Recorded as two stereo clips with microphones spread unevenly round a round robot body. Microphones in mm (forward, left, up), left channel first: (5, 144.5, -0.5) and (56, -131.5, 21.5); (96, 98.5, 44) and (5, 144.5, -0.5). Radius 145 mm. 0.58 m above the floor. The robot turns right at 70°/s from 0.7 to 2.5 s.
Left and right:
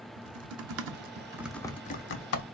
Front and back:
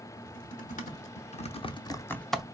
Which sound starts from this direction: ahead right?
Typing on a keyboard, at 0.2 s.